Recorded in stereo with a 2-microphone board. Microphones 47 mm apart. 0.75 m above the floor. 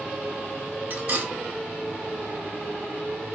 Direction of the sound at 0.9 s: 45° right (ahead or behind).